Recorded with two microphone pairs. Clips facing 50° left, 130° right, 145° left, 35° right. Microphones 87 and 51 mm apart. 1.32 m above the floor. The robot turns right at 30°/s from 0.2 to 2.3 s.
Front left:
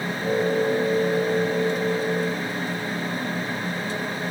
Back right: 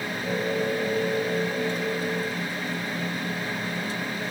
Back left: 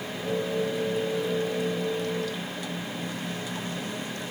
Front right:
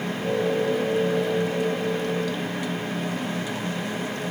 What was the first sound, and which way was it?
Only background noise.